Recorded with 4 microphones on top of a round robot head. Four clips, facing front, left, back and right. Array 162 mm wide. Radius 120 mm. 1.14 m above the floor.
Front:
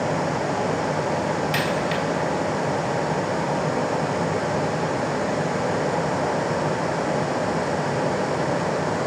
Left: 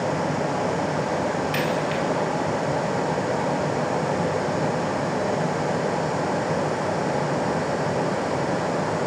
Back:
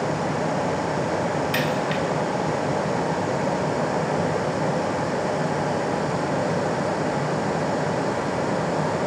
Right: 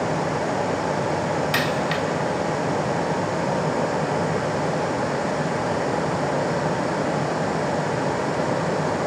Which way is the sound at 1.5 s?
95° right.